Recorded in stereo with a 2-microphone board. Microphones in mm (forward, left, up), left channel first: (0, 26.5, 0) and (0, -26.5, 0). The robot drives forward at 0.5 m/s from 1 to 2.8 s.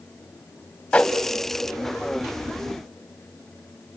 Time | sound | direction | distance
0.9 | a whoosh | 20° left (ahead or behind) | 1.8 m